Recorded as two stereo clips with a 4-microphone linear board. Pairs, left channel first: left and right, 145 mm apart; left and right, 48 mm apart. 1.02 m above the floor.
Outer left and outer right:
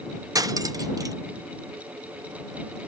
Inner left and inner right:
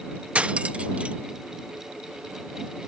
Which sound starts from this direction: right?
Cutlery clinking, at 0.3 s.